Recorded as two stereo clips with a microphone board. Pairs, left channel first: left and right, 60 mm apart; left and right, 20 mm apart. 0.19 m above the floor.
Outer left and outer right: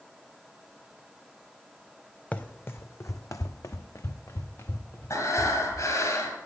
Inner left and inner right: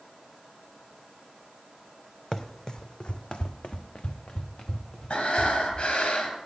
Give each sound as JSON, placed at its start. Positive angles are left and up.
{"t": 2.3, "sound": "running footsteps", "side_deg": 25, "distance_m": 0.7}
{"t": 5.1, "sound": "breathing", "side_deg": 70, "distance_m": 2.0}